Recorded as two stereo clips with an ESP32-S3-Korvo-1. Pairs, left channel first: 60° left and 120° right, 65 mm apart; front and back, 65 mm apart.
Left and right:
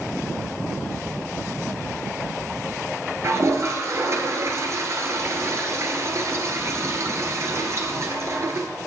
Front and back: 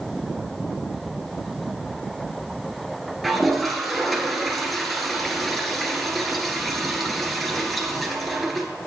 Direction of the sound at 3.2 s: 90° right.